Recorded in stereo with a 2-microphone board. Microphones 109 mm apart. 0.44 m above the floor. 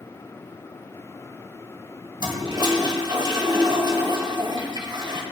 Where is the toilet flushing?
45° right (ahead or behind), 2 m.